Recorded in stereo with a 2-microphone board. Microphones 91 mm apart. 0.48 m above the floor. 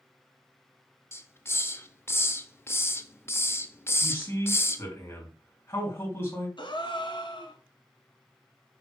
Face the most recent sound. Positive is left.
turn(degrees=60)  # may be behind; listen again after turning